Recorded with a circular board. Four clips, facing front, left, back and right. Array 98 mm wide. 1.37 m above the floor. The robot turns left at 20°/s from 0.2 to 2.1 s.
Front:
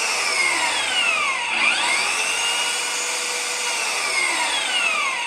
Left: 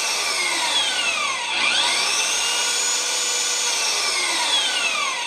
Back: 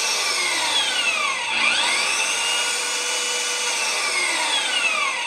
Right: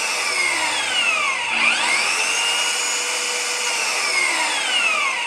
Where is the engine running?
35° right, 0.7 m; by 5.3 s 75° right, 0.7 m.